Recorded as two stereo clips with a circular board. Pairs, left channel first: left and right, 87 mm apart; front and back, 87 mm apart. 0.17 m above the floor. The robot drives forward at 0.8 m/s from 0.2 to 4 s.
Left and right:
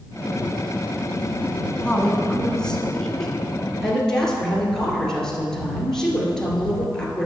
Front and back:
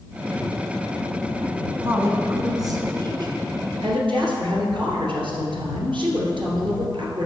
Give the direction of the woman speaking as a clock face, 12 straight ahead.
7 o'clock.